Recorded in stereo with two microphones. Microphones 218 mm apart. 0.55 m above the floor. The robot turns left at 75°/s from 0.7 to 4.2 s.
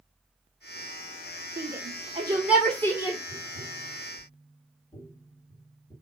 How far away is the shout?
About 1.4 m.